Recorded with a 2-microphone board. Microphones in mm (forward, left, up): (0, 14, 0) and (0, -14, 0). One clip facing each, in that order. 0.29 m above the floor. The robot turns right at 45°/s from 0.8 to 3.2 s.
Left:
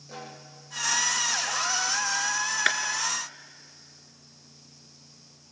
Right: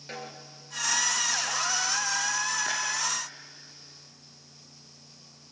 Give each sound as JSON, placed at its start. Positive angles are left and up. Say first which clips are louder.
{"t": 0.1, "sound": "a snare drum", "louder": "right 2 dB", "side_deg": -70, "distance_m": 4.0}
{"t": 2.7, "sound": "a clap", "louder": "left 6 dB", "side_deg": 75, "distance_m": 3.0}